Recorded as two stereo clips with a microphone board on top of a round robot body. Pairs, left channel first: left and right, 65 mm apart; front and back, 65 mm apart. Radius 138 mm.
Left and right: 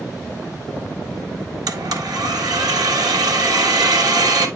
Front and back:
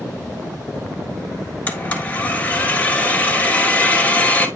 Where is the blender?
65° right, 1.5 m.